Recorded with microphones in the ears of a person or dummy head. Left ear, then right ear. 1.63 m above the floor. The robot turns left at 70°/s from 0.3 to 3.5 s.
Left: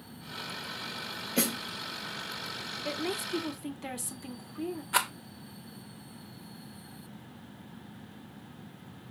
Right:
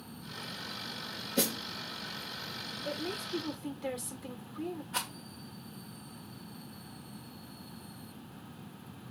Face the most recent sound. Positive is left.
turn(degrees=45)  # may be behind; listen again after turning